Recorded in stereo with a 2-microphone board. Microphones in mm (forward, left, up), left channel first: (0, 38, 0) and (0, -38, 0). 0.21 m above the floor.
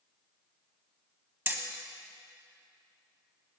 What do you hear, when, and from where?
1.5 s hammering: 30° right (ahead or behind), 1.4 m